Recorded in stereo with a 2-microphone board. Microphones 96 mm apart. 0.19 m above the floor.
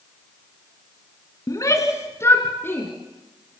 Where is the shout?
35° left (ahead or behind), 1.9 m; by 2.9 s 20° left (ahead or behind), 2.5 m.